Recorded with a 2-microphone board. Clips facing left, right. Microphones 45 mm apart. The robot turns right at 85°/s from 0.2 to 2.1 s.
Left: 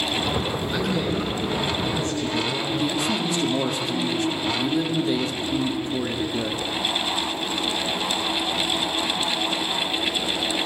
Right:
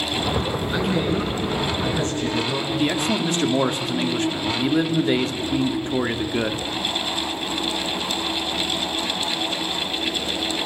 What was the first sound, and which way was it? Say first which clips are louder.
A man speaking: right 3 dB; 165° right.